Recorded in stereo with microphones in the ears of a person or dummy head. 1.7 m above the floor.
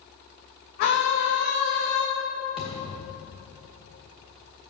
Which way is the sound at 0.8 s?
55° left (ahead or behind).